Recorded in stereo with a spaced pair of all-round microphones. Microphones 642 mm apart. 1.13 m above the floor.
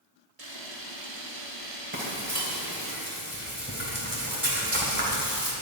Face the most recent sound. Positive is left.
turn(degrees=-15)  # may be behind; listen again after turning